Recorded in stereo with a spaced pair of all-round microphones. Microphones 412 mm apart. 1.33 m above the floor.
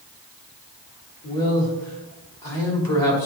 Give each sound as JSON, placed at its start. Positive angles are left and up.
{"t": 1.2, "sound": "a man speaking", "side_deg": 55, "distance_m": 2.5}